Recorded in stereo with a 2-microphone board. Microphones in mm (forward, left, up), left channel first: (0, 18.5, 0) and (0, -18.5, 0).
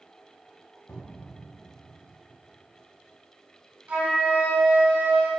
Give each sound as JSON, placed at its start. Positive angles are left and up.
{"t": 0.9, "sound": "a cupboard door", "side_deg": 55, "distance_m": 0.6}
{"t": 3.9, "sound": "a flute", "side_deg": -65, "distance_m": 0.9}